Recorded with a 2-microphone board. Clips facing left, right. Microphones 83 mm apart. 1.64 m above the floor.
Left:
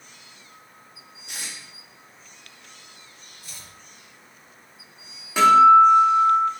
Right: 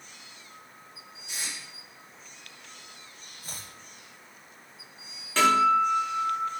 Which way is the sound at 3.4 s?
40° right (ahead or behind).